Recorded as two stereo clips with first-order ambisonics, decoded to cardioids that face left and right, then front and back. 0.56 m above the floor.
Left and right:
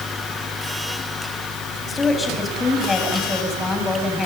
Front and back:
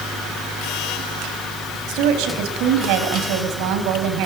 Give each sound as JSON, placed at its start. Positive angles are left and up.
{"t": 1.9, "sound": "a woman speaking", "azimuth_deg": 165, "distance_m": 4.0}